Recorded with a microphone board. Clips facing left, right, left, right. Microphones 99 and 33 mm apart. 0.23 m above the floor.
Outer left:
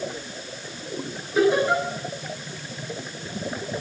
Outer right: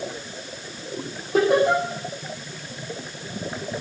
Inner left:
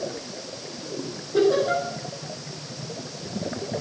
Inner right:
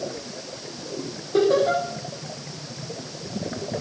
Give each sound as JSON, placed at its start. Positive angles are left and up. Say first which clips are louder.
{"t": 1.3, "sound": "laughter", "louder": "outer right 2 dB, inner right 1 dB", "side_deg": -75, "distance_m": 9.0}